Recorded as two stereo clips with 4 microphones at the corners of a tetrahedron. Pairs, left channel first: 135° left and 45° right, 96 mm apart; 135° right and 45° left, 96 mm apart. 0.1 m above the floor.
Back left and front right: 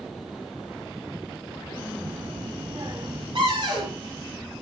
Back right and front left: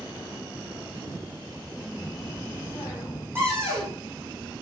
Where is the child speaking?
80° right, 1.9 m.